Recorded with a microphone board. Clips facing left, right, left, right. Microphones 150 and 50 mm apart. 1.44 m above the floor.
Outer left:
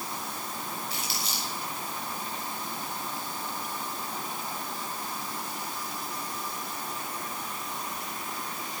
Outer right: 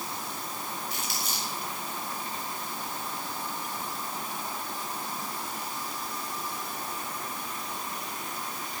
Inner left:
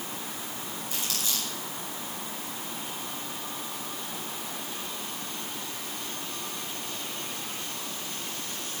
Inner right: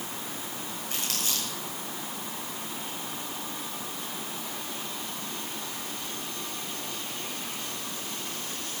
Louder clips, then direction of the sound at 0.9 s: Even, inner right 1 dB; 50° right (ahead or behind).